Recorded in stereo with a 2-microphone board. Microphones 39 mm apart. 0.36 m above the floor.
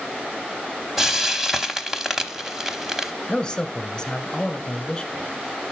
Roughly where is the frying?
Centre.